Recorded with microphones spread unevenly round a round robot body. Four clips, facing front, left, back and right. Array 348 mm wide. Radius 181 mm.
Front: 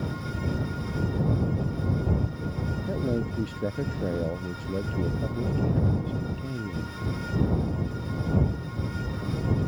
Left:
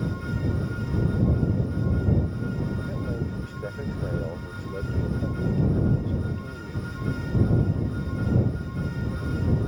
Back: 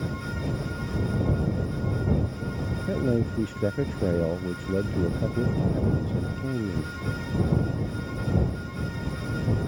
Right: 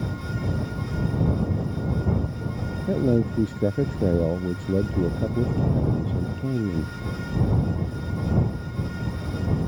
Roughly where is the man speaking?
Right.